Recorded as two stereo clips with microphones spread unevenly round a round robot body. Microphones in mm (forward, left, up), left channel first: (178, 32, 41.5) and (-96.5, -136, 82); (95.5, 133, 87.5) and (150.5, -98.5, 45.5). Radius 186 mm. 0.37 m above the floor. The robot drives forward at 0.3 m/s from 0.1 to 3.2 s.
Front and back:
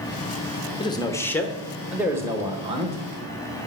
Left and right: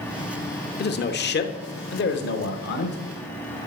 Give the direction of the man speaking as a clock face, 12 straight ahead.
9 o'clock.